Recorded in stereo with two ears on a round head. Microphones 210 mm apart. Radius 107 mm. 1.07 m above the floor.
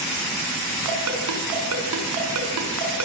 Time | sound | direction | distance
0.8 | a ringtone | 80° right | 6.5 m